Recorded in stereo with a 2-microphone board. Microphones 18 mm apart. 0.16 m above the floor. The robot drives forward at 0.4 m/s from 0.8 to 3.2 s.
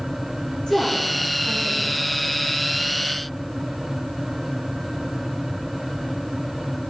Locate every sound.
0.7 s a woman speaking: 50° left (ahead or behind), 7.5 m; by 2.0 s 45° left (ahead or behind), 8 m